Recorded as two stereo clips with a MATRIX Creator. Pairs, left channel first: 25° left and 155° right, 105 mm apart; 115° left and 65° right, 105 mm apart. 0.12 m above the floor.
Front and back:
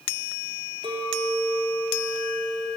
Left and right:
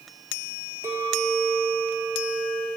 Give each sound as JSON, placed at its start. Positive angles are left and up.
{"t": 0.8, "sound": "a clink", "azimuth_deg": -130, "distance_m": 1.8}